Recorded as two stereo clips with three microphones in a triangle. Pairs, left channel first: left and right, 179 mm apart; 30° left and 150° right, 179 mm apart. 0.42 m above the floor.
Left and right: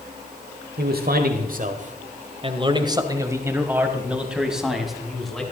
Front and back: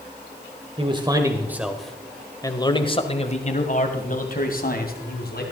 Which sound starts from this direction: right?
A man speaking, at 0.8 s.